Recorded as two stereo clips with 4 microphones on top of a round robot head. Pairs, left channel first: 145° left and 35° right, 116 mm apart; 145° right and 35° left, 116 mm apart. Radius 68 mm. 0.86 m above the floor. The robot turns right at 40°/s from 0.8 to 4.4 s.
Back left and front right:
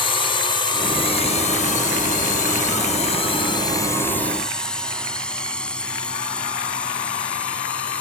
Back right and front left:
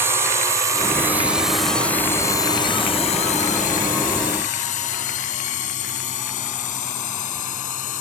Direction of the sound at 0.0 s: 105° left.